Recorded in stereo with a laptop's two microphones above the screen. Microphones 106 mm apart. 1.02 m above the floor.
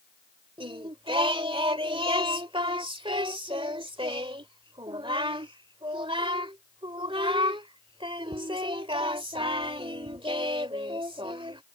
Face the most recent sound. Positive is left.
turn(degrees=-55)  # may be behind; listen again after turning